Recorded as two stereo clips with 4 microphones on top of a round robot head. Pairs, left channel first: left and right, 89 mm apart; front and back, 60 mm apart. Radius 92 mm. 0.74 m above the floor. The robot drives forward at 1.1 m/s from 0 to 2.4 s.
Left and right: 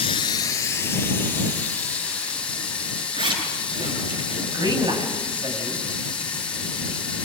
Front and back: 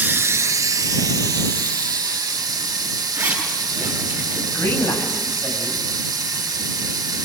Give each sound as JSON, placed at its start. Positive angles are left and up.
{"t": 0.0, "sound": "running water", "azimuth_deg": 130, "distance_m": 0.9}
{"t": 3.1, "sound": "a zipper", "azimuth_deg": -125, "distance_m": 7.0}
{"t": 4.5, "sound": "a man speaking", "azimuth_deg": -50, "distance_m": 6.5}